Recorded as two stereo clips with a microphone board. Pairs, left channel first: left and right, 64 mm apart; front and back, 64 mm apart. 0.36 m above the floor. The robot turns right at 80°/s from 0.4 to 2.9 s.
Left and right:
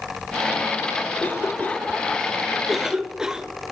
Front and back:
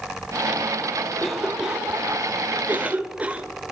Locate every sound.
1.2 s a cough: 70° left, 0.9 m; by 3.5 s 155° right, 0.9 m